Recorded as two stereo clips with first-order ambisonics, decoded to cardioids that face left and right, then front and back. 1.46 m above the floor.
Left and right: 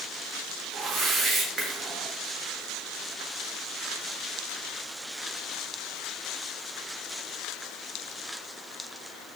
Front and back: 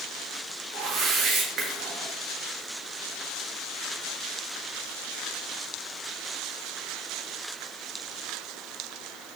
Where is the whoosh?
140° right, 1.0 m.